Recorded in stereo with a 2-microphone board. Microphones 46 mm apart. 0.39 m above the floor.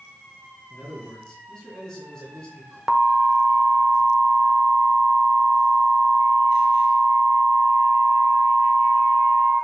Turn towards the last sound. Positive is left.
turn(degrees=-5)  # may be behind; listen again after turning